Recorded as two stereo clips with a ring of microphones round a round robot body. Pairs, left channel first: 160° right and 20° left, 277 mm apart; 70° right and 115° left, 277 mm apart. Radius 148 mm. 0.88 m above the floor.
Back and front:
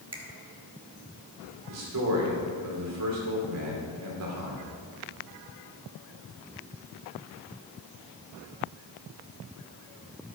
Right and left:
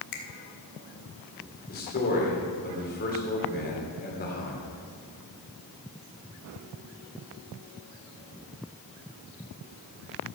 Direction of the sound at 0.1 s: 50° right.